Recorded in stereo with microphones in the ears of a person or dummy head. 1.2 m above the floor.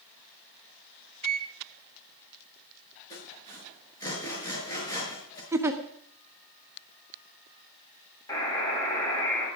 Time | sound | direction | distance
1.2 | a microwave | 40° right (ahead or behind) | 1.1 m
3.1 | sawing | 20° left (ahead or behind) | 5.5 m
5.5 | a giggle | 10° right (ahead or behind) | 1.4 m
8.3 | a buzzer | 20° left (ahead or behind) | 8.5 m